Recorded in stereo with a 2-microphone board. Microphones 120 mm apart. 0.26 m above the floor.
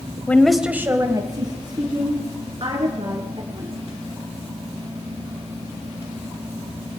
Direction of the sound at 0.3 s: 15° left (ahead or behind).